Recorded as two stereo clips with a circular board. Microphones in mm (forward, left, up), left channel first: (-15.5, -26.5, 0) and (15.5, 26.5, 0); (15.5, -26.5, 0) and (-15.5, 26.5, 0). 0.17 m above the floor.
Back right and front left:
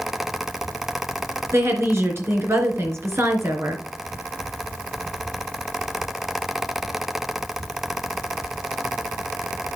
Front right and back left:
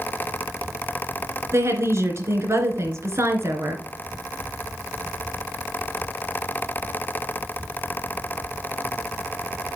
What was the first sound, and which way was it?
A woman speaking, 90° left.